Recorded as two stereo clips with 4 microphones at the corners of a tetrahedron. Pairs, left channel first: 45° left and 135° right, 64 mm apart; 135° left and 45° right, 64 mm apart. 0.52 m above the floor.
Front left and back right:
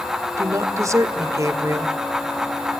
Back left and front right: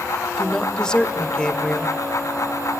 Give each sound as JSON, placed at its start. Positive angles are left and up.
{"t": 0.4, "sound": "a woman speaking", "azimuth_deg": -150, "distance_m": 1.9}